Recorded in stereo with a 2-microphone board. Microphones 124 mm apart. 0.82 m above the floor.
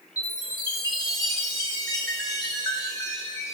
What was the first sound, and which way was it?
A chime, 30° left (ahead or behind).